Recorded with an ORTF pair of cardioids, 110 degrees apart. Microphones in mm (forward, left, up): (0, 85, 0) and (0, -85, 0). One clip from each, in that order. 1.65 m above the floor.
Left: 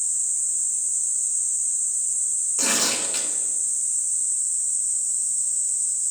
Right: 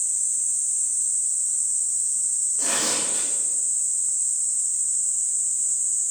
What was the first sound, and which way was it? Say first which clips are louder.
Tearing paper: left 3 dB; 65° left.